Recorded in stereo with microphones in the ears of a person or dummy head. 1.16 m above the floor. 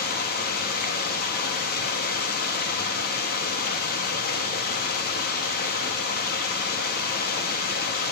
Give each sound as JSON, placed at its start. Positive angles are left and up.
{"t": 0.0, "sound": "running water", "side_deg": 45, "distance_m": 2.0}